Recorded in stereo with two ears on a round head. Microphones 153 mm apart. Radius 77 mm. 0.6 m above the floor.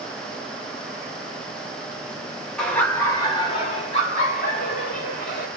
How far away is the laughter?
About 0.9 m.